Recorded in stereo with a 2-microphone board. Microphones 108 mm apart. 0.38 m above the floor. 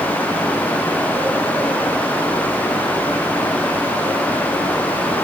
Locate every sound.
Only background noise.